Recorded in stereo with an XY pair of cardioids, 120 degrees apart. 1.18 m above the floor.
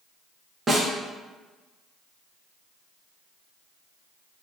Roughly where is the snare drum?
Ahead right.